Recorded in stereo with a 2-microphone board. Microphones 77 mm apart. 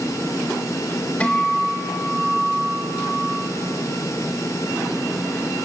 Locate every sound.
1.2 s a guitar: 15° left (ahead or behind), 1.7 m